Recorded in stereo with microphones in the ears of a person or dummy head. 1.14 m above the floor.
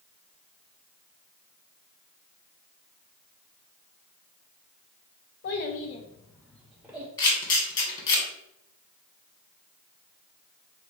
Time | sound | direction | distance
5.4 | a child speaking | 50° left (ahead or behind) | 0.7 m
7.2 | a camera shutter | 25° left (ahead or behind) | 1.3 m